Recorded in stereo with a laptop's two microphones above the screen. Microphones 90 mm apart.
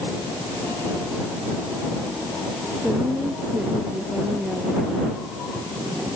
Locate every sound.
2.8 s a woman speaking: 5° right (ahead or behind)